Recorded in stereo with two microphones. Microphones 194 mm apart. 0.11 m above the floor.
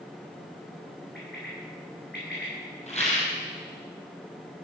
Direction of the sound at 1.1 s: 65° left (ahead or behind).